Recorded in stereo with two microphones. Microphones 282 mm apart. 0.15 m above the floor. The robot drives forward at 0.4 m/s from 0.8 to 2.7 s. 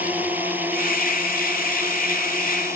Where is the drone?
5° right (ahead or behind); by 2.8 s 10° right (ahead or behind).